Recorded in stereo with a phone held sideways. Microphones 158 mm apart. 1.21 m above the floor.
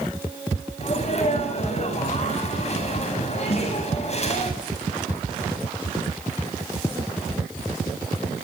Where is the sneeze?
45° left (ahead or behind), 9.5 m.